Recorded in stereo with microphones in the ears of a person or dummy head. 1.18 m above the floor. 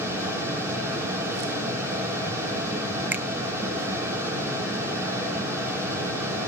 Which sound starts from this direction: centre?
A finger snap, at 3.1 s.